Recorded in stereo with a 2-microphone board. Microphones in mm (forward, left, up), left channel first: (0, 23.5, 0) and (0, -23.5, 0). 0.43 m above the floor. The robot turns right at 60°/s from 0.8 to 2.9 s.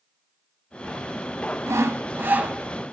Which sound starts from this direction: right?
Sawing, at 1.7 s.